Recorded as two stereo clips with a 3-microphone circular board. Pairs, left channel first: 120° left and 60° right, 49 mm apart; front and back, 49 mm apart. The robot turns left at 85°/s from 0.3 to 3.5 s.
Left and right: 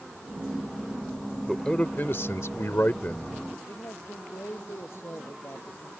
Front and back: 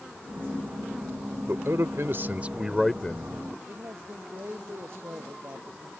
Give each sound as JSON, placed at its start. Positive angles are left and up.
{"t": 1.5, "sound": "a man speaking", "azimuth_deg": -155}
{"t": 3.7, "sound": "a man speaking", "azimuth_deg": 145}